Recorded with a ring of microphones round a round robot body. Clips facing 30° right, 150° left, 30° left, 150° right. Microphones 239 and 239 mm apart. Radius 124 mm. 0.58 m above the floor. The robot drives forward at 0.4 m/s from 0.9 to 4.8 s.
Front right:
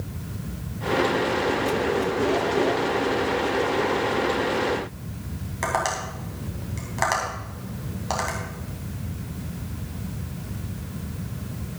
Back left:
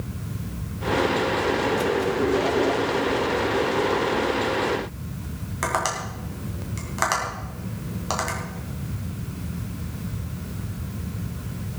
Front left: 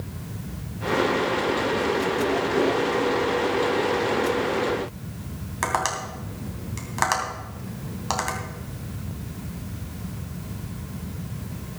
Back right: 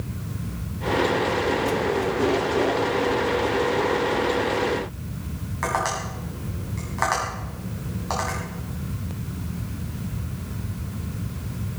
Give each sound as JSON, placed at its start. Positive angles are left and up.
{"t": 5.6, "sound": "tapping", "azimuth_deg": 70, "distance_m": 3.0}